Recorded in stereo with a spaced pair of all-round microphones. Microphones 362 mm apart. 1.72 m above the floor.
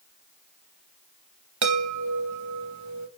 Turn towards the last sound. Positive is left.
turn(degrees=-50)  # may be behind; listen again after turning